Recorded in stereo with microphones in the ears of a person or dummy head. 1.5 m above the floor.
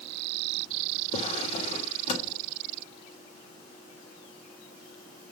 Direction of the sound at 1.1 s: 35° left (ahead or behind).